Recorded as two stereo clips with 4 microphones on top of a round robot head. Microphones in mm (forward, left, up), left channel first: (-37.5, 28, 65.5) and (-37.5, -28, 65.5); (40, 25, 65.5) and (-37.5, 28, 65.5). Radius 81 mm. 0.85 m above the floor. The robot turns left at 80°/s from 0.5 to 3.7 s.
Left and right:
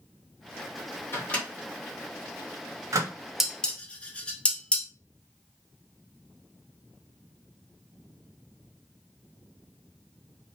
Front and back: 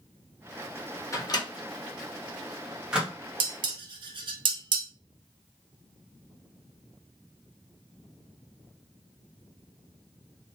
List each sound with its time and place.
1.1 s a microwave: 40° left, 1.0 m; by 3.1 s 120° right, 1.0 m
3.4 s dishes clattering: 175° right, 0.6 m; by 4.9 s 160° left, 0.6 m